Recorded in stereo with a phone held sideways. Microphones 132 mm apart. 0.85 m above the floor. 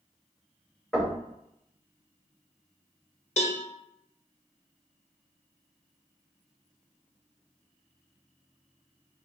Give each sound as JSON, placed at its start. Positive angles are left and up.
{"t": 0.9, "sound": "knocking", "side_deg": 5, "distance_m": 1.8}
{"t": 3.4, "sound": "a cowbell", "side_deg": 60, "distance_m": 0.8}